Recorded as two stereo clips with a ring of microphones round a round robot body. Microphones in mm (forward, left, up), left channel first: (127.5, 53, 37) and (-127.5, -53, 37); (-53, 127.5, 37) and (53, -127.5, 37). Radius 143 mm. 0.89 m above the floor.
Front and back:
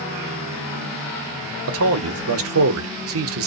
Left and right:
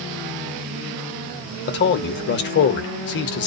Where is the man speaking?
165° left, 0.8 m.